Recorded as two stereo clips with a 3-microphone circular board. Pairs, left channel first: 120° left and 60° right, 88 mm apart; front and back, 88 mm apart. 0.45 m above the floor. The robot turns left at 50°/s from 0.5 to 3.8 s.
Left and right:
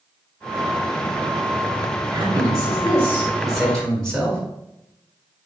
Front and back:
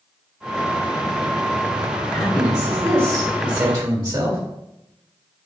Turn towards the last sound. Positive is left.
turn(degrees=-160)